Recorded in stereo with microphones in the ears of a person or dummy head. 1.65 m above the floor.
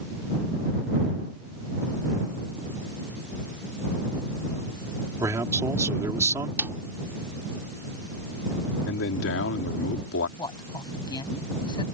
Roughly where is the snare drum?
Centre.